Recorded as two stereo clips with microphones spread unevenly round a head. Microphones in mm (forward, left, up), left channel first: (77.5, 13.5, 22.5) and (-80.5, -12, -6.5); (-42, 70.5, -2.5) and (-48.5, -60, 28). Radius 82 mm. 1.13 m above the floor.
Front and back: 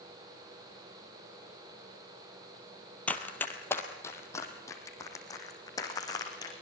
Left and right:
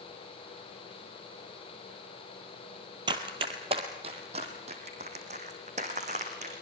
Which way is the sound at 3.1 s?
60° right.